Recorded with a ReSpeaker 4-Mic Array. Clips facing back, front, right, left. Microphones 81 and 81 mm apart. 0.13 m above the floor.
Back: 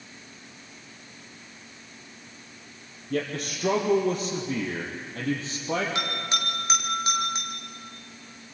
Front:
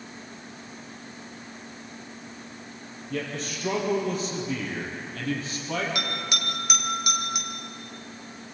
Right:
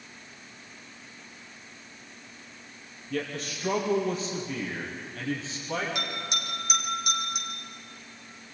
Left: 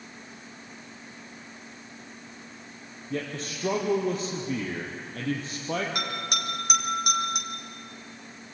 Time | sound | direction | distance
3.1 | a man speaking | 145° left | 4 m
6.0 | a bell | 120° left | 3 m